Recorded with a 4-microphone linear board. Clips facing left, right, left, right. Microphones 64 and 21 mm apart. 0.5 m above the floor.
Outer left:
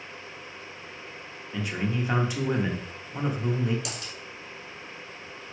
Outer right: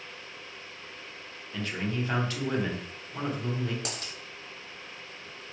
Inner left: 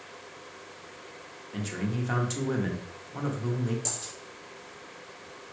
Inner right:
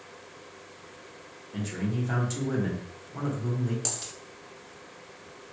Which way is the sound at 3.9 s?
40° right (ahead or behind).